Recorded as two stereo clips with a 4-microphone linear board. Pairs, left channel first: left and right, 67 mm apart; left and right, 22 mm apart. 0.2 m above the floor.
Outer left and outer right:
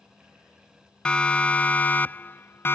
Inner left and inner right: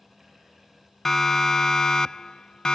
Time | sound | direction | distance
1.1 | a siren | 15° left (ahead or behind) | ?